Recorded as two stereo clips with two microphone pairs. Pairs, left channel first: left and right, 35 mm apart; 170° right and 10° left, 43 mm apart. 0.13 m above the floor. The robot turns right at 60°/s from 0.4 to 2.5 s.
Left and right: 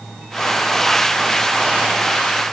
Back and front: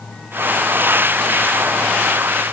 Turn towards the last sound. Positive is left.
No sound to turn to.